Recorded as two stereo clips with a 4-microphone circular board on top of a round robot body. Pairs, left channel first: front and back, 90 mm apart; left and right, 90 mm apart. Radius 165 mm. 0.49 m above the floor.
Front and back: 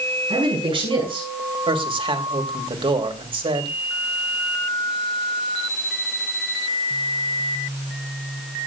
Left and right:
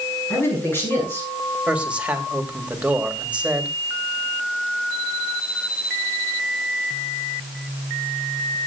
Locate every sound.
0.3 s a man speaking: 155° left, 9 m
1.7 s a man speaking: 165° right, 2.5 m